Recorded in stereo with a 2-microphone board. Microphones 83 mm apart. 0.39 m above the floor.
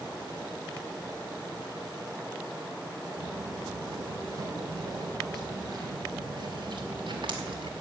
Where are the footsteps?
35° right (ahead or behind), 8 m; by 7.7 s 80° right, 2.5 m.